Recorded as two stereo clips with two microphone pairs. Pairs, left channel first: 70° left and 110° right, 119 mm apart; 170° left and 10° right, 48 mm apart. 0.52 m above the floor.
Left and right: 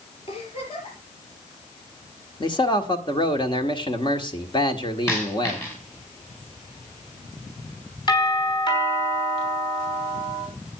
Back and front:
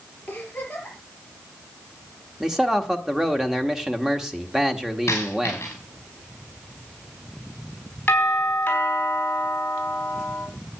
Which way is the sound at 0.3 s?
105° left.